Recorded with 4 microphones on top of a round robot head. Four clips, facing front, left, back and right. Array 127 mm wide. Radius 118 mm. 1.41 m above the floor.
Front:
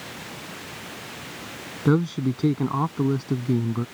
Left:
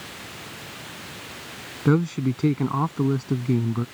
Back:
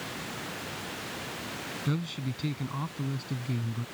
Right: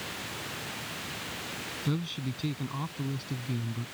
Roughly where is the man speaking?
Ahead left.